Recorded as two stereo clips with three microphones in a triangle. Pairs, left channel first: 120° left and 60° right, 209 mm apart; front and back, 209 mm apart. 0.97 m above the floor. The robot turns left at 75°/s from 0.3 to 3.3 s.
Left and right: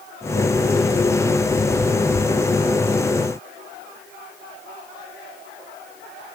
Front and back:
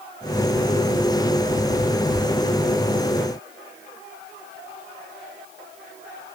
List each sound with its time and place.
Only background noise.